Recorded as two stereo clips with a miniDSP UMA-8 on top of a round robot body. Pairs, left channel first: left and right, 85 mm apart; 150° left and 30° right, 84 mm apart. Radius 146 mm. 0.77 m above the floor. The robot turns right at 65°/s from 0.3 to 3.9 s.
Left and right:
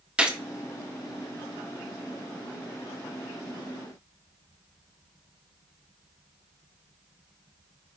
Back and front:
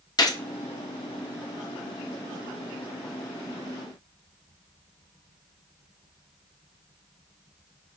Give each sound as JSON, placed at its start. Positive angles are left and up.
{"t": 0.2, "sound": "a gunshot", "azimuth_deg": -165, "distance_m": 1.0}